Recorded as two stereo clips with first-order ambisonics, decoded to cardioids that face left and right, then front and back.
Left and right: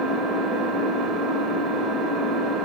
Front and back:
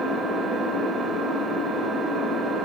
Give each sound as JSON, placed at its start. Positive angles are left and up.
{"t": 0.0, "sound": "an engine running", "azimuth_deg": -115, "distance_m": 1.0}